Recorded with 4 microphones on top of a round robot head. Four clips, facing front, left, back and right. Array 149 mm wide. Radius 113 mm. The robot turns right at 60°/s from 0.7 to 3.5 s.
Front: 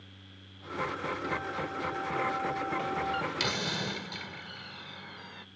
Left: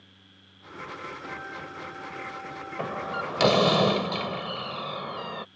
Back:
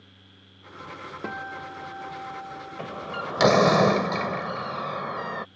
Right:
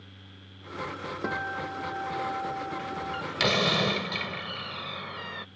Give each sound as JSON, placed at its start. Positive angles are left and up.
{"t": 1.2, "sound": "a guitar", "azimuth_deg": -130}
{"t": 2.8, "sound": "a door slam", "azimuth_deg": 110}